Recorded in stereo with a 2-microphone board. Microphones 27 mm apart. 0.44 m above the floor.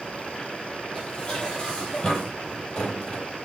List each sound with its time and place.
0.9 s dishes clattering: 30° left (ahead or behind), 9 m